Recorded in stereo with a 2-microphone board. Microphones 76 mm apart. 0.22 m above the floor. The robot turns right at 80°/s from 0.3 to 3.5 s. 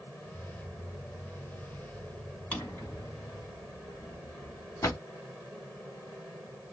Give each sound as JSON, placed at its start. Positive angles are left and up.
{"t": 2.5, "sound": "a drawer", "side_deg": 20, "distance_m": 1.1}